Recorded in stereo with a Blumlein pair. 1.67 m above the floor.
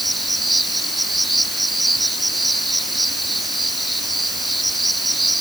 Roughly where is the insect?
Ahead.